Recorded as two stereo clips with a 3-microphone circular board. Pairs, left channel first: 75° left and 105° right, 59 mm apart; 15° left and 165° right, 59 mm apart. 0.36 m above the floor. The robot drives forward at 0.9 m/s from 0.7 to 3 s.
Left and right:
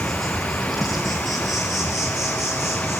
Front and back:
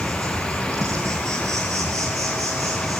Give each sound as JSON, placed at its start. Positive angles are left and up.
{"t": 0.0, "sound": "an insect", "azimuth_deg": 165, "distance_m": 4.5}